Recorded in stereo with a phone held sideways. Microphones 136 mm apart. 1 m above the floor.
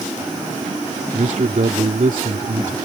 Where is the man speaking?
75° right (ahead or behind).